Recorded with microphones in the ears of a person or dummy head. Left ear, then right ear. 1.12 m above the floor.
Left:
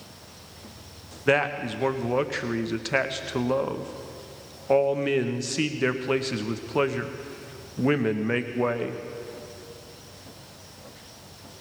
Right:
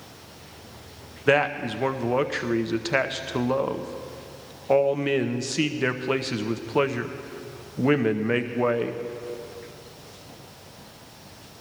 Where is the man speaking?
5° right (ahead or behind), 0.7 m.